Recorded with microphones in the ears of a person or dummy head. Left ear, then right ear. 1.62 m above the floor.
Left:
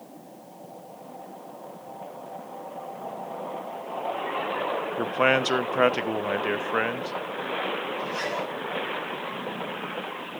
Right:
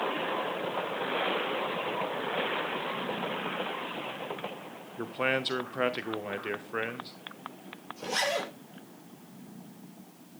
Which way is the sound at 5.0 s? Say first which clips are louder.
Left 7 dB; 35° left (ahead or behind).